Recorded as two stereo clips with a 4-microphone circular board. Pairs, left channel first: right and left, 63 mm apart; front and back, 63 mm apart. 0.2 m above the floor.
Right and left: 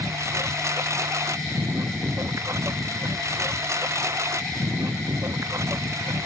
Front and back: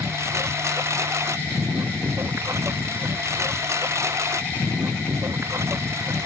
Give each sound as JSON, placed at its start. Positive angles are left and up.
{"t": 0.0, "sound": "a lawn mower", "azimuth_deg": 135}